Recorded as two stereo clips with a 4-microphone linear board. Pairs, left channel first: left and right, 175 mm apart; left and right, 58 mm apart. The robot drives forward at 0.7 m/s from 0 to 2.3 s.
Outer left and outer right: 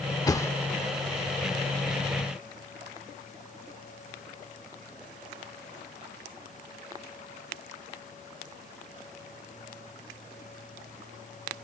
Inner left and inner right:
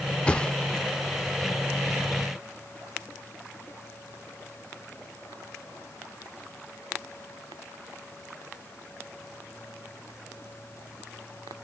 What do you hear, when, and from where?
0.3 s a thud: 20° left (ahead or behind); by 0.8 s 15° left (ahead or behind)